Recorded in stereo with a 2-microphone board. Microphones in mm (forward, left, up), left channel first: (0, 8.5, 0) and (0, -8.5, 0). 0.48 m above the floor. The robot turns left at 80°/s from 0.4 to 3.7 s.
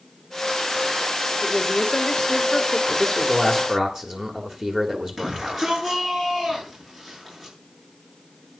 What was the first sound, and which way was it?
A woman speaking, 140° left.